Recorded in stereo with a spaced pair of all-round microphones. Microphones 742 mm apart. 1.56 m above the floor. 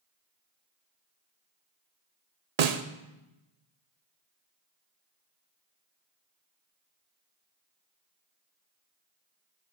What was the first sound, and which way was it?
A snare drum, 60° right (ahead or behind).